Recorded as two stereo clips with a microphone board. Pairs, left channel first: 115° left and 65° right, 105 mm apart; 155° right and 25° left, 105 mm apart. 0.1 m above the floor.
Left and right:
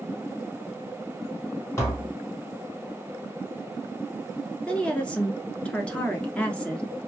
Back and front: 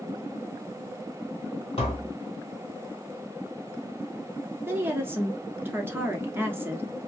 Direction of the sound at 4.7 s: 50° left.